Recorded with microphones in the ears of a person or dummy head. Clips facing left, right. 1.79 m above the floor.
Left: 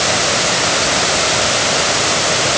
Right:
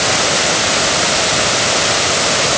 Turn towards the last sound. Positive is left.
No sound to turn to.